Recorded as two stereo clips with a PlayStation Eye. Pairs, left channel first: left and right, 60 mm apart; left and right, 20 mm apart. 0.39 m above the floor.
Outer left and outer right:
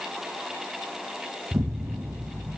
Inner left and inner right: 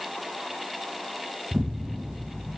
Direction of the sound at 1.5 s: 50° right (ahead or behind).